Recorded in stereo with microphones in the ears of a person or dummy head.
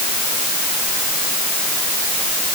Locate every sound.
Only background noise.